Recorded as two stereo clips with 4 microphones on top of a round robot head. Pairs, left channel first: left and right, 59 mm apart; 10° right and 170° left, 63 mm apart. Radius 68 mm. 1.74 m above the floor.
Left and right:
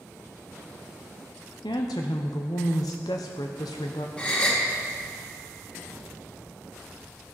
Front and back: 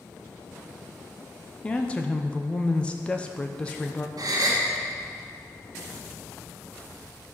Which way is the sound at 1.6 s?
65° left.